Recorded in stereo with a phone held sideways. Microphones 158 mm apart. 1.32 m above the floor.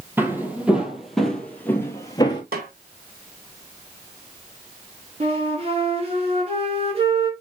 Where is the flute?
40° right (ahead or behind), 3 m.